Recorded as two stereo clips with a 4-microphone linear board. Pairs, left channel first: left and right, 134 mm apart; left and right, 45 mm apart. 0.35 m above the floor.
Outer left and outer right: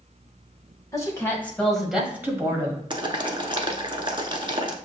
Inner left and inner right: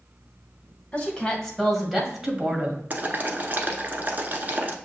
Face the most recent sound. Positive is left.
turn(degrees=-40)  # may be behind; listen again after turning